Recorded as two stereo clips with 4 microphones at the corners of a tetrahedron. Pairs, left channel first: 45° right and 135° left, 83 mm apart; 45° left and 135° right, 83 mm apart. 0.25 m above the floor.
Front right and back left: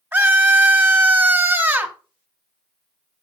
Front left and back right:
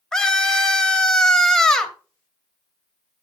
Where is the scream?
120° left, 1.0 m.